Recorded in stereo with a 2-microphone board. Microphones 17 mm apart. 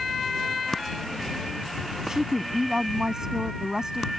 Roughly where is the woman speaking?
Right.